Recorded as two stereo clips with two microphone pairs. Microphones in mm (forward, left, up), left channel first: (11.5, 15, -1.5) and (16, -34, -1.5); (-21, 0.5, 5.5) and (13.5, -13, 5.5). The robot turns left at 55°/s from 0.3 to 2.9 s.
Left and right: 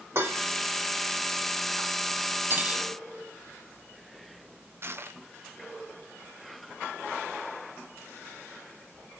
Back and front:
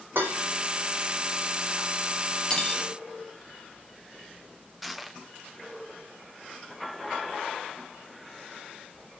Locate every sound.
0.1 s dishes clattering: 50° right, 2.5 m; by 0.5 s 55° right, 2.5 m
2.5 s cutlery clinking: 135° right, 1.0 m; by 2.8 s 150° right, 1.0 m
4.8 s crushing: 110° right, 0.7 m